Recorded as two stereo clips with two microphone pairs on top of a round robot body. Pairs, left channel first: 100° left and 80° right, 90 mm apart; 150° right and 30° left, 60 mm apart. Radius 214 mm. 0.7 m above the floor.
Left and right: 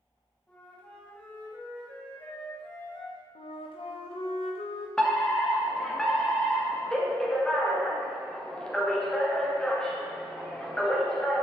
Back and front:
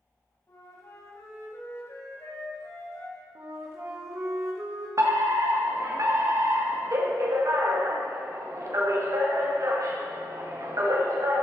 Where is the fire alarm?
20° left, 2.5 m.